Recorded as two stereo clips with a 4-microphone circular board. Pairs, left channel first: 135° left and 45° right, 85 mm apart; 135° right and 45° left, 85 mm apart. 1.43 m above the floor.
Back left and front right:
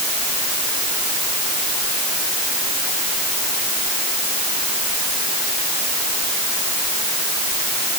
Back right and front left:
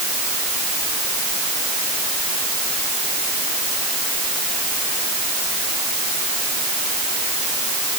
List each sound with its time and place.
Only background noise.